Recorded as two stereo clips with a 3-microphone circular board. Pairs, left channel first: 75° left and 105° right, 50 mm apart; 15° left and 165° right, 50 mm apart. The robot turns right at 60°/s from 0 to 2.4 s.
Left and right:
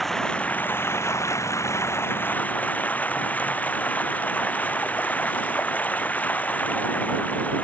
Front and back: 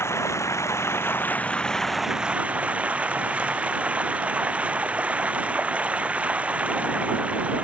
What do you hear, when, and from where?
0.0 s running water: 10° right; by 7.6 s 135° left